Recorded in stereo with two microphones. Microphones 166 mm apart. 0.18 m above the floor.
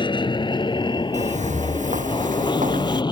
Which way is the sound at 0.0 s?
30° left (ahead or behind).